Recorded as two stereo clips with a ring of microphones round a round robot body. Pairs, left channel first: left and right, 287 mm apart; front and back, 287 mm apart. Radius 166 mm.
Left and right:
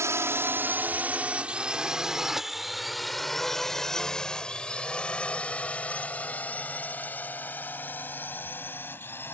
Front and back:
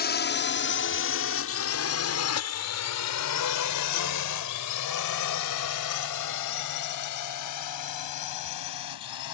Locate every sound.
0.0 s a drone: 15° right; by 9.3 s 5° left